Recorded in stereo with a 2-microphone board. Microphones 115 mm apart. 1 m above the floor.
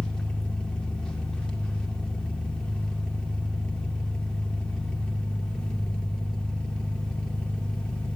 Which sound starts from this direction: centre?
An engine running, at 0.0 s.